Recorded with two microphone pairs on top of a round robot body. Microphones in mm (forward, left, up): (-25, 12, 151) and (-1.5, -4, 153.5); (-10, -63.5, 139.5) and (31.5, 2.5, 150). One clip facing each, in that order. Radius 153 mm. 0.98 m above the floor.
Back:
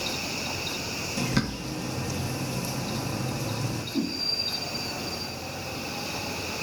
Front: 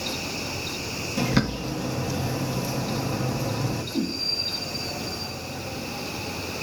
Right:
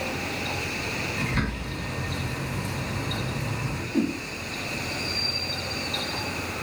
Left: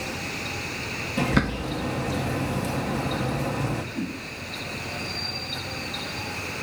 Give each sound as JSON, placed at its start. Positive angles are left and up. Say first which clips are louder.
{"t": 1.2, "sound": "a bird", "louder": "front 5 dB, left 9 dB", "azimuth_deg": 45, "distance_m": 0.5}
{"t": 3.9, "sound": "a whoosh", "louder": "even, right 6 dB", "azimuth_deg": -145, "distance_m": 0.7}